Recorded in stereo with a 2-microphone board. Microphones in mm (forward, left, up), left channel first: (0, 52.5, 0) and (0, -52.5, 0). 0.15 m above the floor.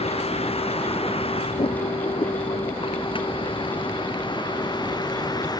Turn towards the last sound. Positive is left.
turn(degrees=40)  # may be behind; listen again after turning